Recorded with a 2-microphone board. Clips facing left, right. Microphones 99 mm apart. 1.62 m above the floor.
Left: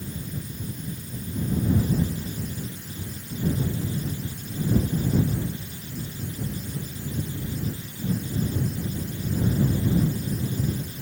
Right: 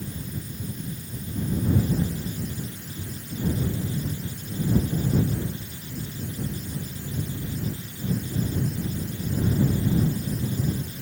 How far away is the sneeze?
I don't hear a sneeze.